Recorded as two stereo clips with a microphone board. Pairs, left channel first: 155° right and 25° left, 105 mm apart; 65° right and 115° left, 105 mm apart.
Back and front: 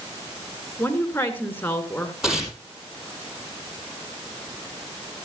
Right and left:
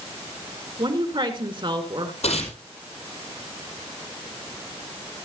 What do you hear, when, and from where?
0.8 s a woman speaking: 135° left, 2.5 m
2.2 s tearing paper: 65° right, 5 m